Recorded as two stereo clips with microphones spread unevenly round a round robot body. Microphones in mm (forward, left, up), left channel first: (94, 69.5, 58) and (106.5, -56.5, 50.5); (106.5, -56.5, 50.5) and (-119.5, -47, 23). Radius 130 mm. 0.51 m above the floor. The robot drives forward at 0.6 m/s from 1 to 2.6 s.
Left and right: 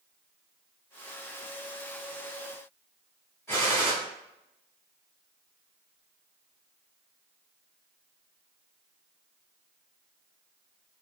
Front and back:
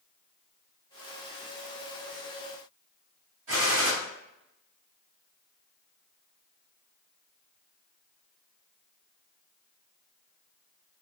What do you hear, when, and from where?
3.5 s a gunshot: 175° right, 1.2 m